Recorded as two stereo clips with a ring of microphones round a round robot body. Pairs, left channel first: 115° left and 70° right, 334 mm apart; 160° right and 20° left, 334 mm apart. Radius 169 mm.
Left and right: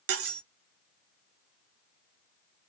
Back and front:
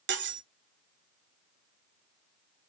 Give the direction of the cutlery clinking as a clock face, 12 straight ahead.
1 o'clock.